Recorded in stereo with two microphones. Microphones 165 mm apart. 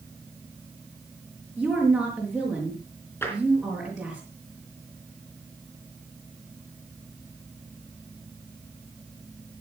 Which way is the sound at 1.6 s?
5° right (ahead or behind).